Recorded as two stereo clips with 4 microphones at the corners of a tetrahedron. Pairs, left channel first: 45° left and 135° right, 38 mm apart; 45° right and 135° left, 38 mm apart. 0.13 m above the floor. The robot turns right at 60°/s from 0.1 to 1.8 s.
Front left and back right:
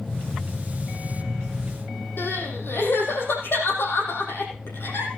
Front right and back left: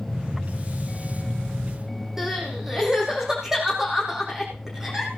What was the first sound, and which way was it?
Crying, 60° left.